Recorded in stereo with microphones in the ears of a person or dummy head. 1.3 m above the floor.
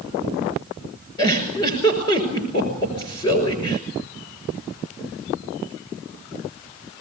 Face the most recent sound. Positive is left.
turn(degrees=30)  # may be behind; listen again after turning